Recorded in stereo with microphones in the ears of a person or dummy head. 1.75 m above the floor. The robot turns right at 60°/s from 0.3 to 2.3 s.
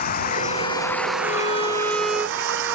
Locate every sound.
0.0 s running water: 135° left; by 2.8 s 105° right
1.2 s a violin: 130° left; by 2.8 s 160° right